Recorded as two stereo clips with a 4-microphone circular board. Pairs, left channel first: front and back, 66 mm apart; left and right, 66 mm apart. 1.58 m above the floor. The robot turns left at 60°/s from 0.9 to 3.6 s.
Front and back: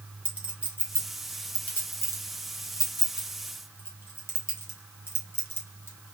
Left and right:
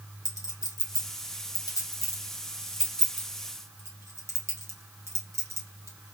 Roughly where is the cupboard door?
No cupboard door in this recording.